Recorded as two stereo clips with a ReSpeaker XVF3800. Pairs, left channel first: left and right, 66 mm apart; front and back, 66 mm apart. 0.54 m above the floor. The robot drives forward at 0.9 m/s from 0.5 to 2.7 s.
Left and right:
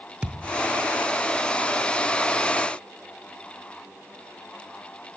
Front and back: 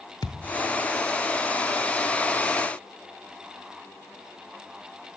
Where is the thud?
20° right, 1.7 m.